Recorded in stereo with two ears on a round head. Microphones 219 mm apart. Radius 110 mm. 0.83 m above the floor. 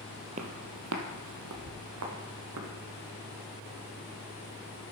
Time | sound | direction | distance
0.4 | footsteps | 30° right (ahead or behind) | 1.2 m